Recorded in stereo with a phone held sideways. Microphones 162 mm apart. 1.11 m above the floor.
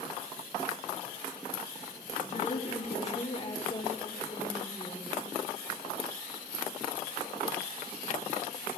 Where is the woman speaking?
50° left (ahead or behind), 3 m; by 5.3 s 20° left (ahead or behind), 4 m.